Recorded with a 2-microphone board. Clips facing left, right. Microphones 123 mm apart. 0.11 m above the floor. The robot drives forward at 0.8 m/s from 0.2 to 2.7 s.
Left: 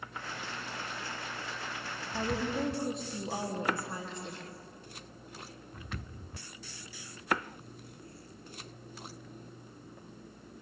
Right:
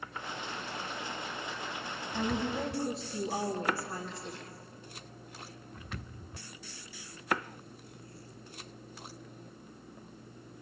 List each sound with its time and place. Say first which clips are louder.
2.1 s a woman speaking: even; 25° left (ahead or behind), 3 m; by 4.5 s 20° left (ahead or behind), 3.5 m